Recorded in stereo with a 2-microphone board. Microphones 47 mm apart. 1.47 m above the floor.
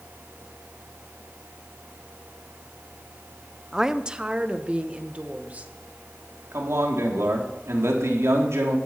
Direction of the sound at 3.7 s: 10° right (ahead or behind).